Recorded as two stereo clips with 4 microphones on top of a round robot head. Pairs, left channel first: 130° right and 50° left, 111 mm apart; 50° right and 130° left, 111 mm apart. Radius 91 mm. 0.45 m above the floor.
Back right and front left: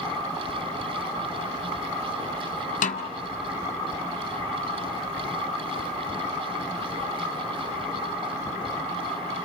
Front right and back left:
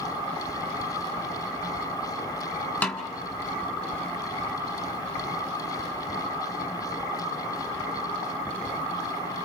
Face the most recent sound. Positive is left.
turn(degrees=-130)